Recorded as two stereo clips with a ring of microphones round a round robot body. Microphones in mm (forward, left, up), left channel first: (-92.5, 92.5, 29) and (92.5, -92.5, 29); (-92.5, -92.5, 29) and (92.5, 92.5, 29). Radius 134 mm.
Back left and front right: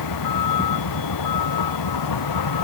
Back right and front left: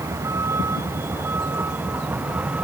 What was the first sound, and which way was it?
A vehicle, 125° left.